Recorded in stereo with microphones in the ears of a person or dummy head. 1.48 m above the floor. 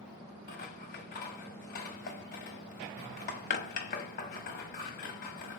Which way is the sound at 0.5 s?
40° left (ahead or behind).